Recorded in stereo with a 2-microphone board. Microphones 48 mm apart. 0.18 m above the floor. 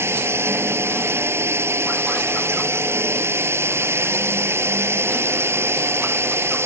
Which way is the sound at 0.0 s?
70° right (ahead or behind).